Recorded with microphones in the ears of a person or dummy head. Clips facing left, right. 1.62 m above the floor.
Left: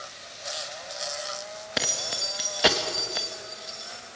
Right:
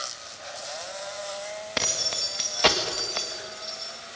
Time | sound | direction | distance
1.8 | keys jangling | 10° left (ahead or behind) | 1.6 m